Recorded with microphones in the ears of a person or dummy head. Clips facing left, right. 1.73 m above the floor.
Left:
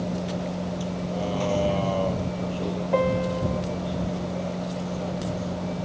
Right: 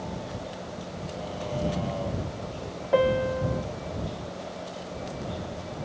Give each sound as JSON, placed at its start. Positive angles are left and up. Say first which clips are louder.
{"t": 0.0, "sound": "a vehicle", "louder": "left 7 dB", "side_deg": 65}
{"t": 2.9, "sound": "a piano", "louder": "right 2 dB", "side_deg": -5}